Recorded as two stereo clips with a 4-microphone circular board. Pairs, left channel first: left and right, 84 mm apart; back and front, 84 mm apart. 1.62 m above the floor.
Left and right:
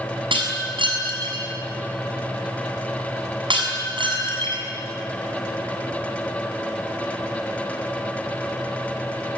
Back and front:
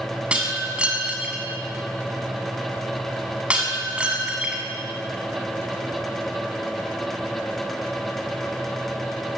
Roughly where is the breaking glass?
Right.